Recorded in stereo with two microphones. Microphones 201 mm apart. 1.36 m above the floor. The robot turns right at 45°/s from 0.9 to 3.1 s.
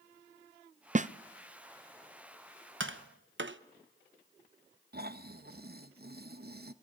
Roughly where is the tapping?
Right.